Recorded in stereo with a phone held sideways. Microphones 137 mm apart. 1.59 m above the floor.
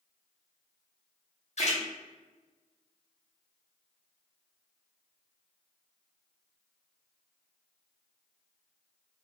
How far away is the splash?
About 0.6 m.